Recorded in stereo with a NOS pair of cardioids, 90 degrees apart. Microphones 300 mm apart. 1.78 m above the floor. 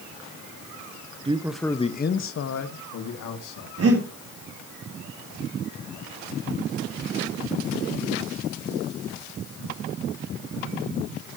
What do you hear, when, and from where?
1.2 s a man speaking: 15° right, 1.3 m; by 3.7 s 75° left, 3 m
3.8 s breathing: 45° right, 3.5 m